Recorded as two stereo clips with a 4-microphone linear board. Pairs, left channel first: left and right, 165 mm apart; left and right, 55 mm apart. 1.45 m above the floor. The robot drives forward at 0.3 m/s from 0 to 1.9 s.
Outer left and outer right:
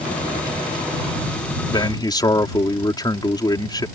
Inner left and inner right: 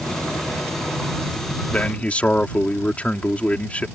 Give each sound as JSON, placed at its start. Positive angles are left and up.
{"t": 1.7, "sound": "a man speaking", "side_deg": 25}